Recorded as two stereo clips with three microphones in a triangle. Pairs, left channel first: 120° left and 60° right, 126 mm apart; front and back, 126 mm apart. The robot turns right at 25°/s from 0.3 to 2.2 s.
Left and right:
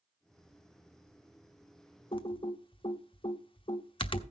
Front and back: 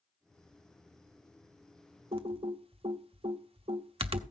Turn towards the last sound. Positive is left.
turn(degrees=155)